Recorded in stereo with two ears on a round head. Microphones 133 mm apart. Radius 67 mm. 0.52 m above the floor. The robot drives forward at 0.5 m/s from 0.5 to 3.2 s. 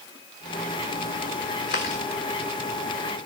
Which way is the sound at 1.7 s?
65° left (ahead or behind).